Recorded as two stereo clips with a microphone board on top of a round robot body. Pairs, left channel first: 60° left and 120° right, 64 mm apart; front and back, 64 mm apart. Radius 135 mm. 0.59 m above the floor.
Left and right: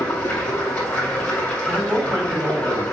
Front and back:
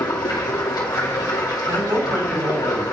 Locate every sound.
0.0 s running water: 10° right, 2.5 m
1.7 s a man speaking: 170° left, 4 m